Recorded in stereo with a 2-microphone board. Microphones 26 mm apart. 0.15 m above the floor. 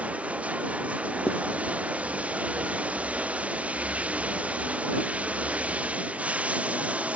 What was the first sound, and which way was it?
Running water, 60° right (ahead or behind).